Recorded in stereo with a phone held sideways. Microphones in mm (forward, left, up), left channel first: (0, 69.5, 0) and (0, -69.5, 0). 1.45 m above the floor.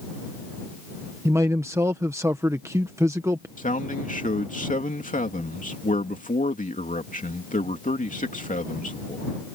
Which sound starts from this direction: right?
A man speaking, at 1.2 s.